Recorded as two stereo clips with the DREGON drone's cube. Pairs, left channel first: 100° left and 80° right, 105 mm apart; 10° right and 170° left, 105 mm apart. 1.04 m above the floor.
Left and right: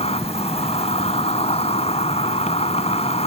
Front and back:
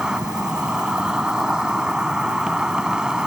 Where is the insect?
85° left.